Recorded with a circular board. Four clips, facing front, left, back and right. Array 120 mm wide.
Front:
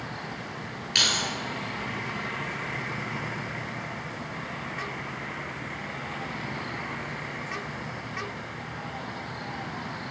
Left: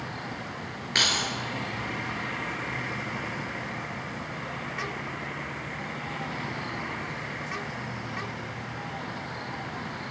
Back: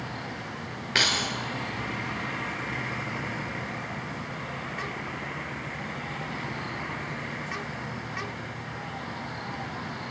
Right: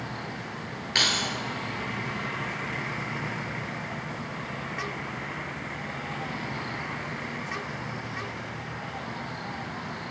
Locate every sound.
0.9 s keys jangling: 170° left, 1.4 m